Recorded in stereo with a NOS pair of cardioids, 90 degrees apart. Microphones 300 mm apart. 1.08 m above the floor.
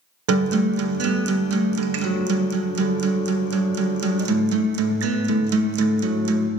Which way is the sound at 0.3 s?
50° right.